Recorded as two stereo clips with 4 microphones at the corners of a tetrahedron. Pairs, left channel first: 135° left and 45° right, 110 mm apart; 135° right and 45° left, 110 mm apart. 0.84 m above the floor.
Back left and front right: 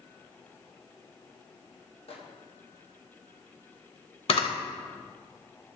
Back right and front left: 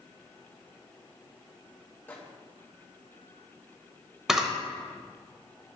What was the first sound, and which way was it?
A microwave, 155° left.